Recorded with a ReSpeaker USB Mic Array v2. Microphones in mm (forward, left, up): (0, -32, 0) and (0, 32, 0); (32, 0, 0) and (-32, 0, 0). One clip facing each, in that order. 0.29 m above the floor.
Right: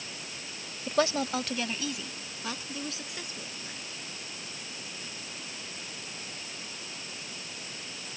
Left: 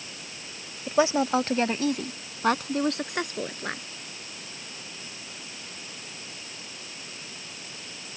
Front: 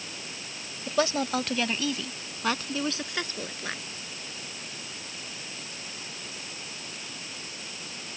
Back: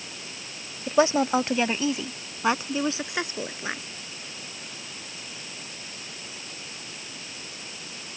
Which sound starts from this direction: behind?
A woman speaking, at 0.9 s.